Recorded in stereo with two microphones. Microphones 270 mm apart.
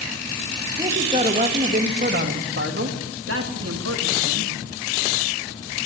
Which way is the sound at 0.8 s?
20° right (ahead or behind).